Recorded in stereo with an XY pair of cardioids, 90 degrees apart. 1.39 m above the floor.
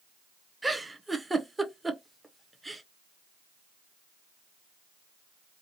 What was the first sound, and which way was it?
A giggle, 15° right.